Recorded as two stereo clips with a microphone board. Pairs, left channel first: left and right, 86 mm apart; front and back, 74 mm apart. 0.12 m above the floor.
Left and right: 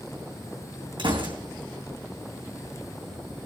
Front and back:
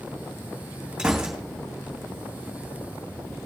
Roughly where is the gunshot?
Right.